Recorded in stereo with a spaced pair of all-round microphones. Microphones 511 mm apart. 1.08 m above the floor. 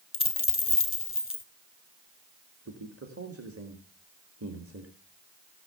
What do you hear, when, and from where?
0.1 s a dropped coin: 25° left (ahead or behind), 1.4 m
2.6 s a man speaking: 25° right (ahead or behind), 2 m